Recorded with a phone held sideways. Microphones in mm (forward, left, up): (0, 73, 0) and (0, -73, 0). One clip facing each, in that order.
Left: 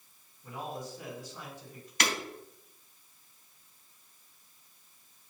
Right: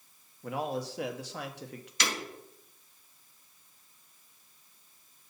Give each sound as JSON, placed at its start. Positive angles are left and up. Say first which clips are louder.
{"t": 0.4, "sound": "a man speaking", "louder": "right 6 dB", "side_deg": -80, "distance_m": 0.9}
{"t": 2.0, "sound": "breaking glass", "louder": "left 2 dB", "side_deg": 60, "distance_m": 3.0}